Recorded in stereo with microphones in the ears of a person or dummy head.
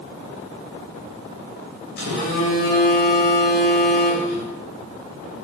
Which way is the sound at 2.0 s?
55° left (ahead or behind).